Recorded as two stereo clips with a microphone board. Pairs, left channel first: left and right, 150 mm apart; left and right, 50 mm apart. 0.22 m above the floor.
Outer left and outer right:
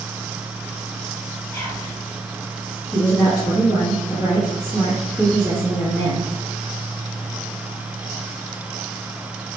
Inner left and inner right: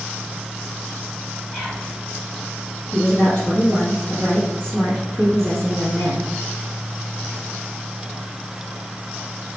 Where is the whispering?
20° left (ahead or behind), 1.5 m.